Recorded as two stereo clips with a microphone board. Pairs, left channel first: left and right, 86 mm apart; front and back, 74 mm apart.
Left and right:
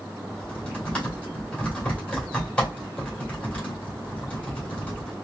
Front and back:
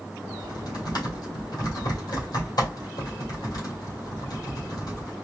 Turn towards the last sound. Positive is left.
turn(degrees=15)